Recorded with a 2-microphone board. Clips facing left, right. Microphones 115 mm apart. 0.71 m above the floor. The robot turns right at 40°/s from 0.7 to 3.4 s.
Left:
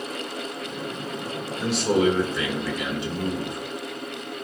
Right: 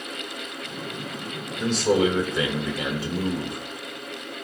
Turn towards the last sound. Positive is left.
turn(degrees=-115)